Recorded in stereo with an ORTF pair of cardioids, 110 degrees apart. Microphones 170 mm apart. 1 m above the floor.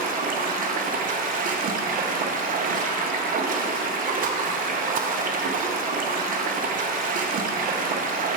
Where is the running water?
50° right, 0.7 m.